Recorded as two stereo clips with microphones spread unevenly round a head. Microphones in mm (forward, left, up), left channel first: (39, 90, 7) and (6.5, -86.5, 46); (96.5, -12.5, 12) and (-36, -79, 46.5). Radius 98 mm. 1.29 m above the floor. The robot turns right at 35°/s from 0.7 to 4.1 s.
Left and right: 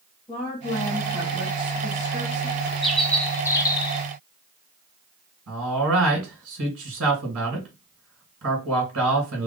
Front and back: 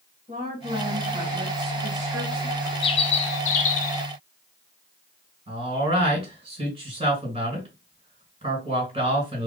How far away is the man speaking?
About 2 m.